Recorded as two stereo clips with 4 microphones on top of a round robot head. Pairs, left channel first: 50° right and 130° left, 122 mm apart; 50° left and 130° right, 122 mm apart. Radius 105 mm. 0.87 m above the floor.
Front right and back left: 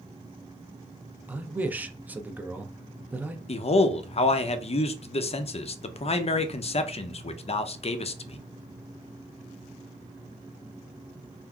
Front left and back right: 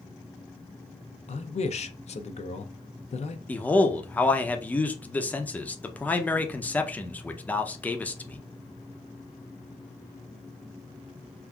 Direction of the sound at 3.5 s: 25° right.